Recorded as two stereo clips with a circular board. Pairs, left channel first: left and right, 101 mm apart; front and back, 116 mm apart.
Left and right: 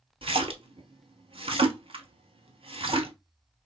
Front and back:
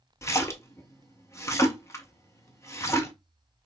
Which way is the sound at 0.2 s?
65° right.